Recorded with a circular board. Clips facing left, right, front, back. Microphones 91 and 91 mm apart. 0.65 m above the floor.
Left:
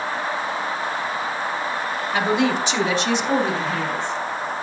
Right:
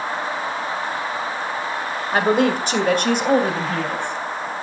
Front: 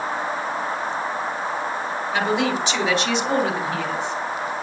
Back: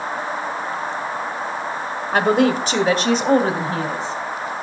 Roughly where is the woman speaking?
Behind right.